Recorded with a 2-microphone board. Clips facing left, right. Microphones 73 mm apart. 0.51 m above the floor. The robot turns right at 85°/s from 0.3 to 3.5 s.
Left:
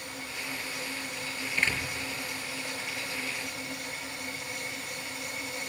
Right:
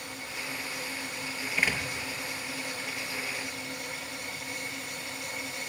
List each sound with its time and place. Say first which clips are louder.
1.6 s a door slam: right 1 dB; 5° right (ahead or behind), 6.5 m; by 1.8 s 25° right (ahead or behind), 6.5 m